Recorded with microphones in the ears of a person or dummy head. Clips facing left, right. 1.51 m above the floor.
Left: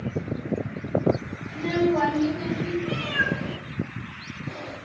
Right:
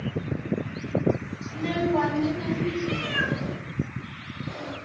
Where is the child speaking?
5° right (ahead or behind), 0.9 m; by 2.7 s 10° right (ahead or behind), 0.8 m.